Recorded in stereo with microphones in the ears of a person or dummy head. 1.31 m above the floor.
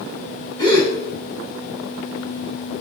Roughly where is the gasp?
Centre.